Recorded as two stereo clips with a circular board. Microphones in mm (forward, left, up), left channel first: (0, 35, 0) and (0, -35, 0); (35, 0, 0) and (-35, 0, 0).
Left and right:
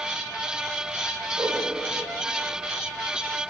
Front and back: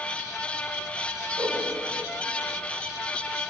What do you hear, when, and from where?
1.4 s a whoosh: 135° right, 4 m